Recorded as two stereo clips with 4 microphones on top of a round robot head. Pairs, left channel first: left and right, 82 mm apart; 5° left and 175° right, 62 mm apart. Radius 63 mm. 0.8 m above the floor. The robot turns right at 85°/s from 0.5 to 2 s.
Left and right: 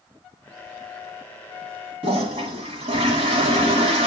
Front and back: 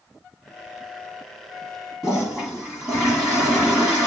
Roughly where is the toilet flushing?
Right.